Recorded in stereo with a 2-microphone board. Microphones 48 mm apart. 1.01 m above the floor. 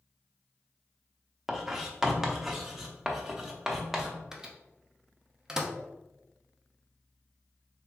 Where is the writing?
10° right (ahead or behind), 0.7 m.